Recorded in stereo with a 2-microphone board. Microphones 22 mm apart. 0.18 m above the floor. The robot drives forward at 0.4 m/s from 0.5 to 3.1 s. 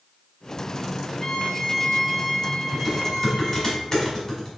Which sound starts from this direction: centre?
A violin, at 1.2 s.